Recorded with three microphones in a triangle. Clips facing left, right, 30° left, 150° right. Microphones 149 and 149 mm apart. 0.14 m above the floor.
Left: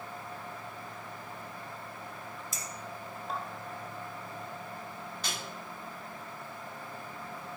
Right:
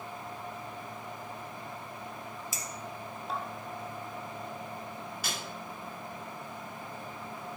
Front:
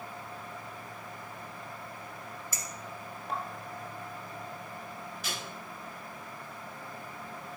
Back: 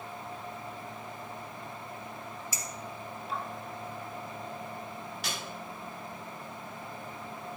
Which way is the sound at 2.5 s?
5° right.